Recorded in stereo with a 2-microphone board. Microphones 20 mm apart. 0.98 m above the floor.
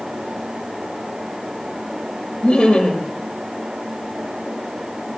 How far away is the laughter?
About 5.5 m.